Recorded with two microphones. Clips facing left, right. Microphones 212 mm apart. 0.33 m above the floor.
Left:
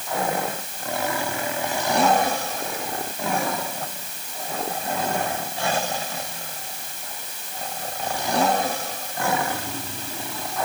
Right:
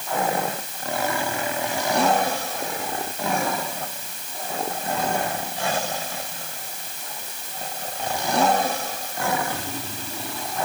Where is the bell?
No bell in this recording.